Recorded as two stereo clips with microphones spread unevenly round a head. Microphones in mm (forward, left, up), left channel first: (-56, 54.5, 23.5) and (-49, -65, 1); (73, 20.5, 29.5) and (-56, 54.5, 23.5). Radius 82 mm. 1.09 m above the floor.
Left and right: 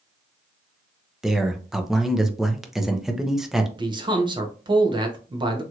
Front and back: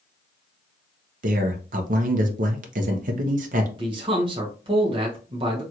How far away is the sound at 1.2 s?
About 0.7 m.